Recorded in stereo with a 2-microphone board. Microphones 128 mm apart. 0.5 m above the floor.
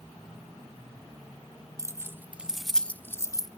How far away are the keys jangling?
About 1.0 m.